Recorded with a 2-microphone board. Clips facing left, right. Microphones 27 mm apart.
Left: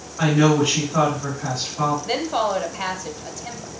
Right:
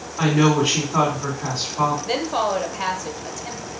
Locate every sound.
0.2 s a woman speaking: 45° right (ahead or behind), 3 m
2.0 s a woman speaking: centre (ahead or behind), 1.0 m